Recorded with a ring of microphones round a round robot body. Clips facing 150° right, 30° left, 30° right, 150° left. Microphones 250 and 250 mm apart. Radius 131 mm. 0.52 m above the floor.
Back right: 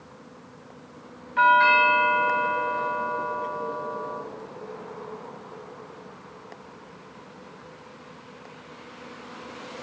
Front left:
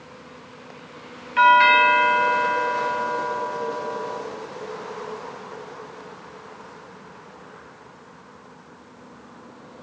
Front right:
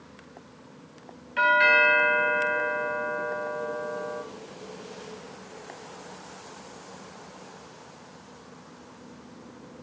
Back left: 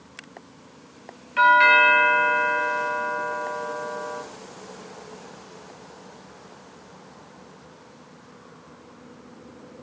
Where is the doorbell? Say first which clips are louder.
Front left 3 dB, back left 2 dB; 70° left, 3 m.